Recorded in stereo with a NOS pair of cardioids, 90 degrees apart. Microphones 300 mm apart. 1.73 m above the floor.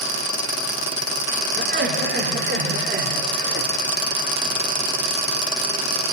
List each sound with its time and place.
1.6 s laughter: 35° right, 4.5 m